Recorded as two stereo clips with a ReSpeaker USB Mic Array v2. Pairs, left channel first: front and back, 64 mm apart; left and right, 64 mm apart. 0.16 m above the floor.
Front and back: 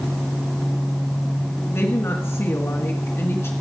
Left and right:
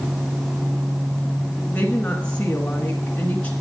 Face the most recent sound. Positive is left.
turn(degrees=30)